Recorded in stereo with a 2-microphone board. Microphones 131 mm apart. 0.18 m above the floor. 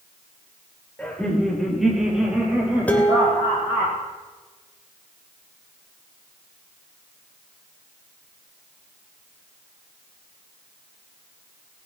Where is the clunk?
No clunk in this recording.